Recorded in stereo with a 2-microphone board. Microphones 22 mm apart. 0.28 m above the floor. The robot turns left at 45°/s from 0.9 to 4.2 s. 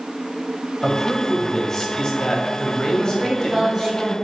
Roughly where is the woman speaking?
Ahead.